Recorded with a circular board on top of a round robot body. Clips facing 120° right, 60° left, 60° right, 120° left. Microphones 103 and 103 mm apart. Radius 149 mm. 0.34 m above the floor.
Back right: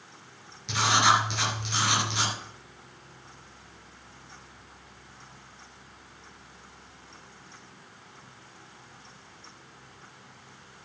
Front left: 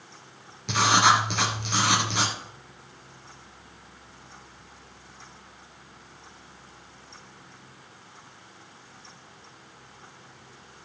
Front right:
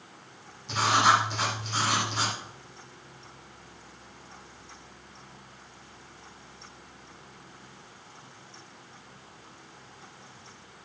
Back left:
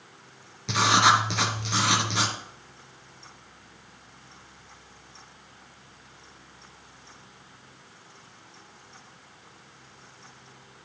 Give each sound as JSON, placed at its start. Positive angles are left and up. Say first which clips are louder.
{"t": 0.7, "sound": "writing", "louder": "front left 3 dB, back left 2 dB", "azimuth_deg": 105, "distance_m": 2.5}